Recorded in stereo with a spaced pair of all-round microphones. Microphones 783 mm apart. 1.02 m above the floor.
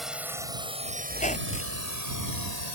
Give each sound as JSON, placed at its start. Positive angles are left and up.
{"t": 0.0, "sound": "a drone", "side_deg": 0}
{"t": 1.1, "sound": "a squeak", "side_deg": 10}